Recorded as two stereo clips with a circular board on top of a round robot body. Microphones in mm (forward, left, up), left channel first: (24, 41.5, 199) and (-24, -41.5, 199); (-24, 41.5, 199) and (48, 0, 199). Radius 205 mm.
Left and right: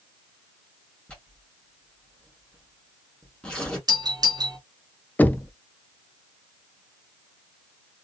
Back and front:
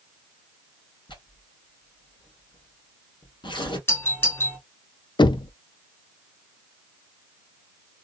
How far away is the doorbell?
About 2 m.